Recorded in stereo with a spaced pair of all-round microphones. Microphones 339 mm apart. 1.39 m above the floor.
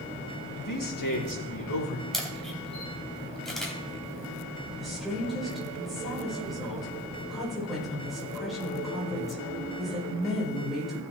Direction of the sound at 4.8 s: Centre (ahead or behind).